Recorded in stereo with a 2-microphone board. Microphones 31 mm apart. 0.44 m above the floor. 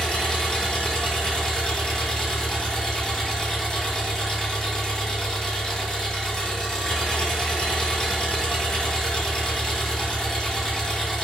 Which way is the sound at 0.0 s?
25° left (ahead or behind).